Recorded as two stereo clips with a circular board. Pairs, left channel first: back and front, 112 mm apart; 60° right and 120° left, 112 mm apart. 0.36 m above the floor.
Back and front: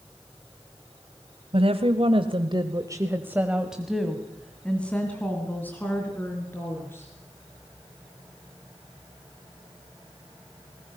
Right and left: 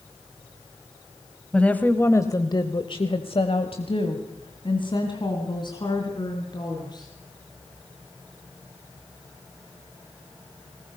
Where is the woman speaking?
20° left, 1.9 m; by 7.1 s 110° right, 5.5 m.